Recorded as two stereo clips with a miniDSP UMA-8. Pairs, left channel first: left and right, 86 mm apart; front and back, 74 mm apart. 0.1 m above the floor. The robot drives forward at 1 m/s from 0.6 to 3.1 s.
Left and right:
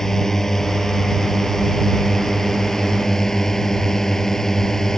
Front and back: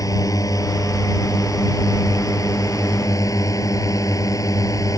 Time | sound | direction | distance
0.0 | a drone | 5° left | ?